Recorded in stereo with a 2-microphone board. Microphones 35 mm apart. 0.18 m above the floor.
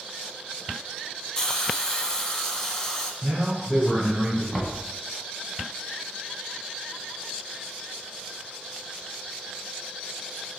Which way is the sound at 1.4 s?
15° left (ahead or behind).